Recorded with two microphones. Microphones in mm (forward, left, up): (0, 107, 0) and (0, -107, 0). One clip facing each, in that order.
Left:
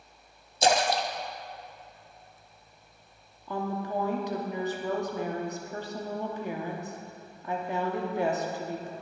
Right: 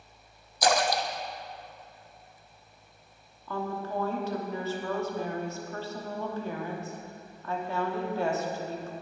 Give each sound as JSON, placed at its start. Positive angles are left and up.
{"t": 0.6, "sound": "a splash", "side_deg": 25, "distance_m": 0.7}
{"t": 3.5, "sound": "a woman speaking", "side_deg": 15, "distance_m": 1.2}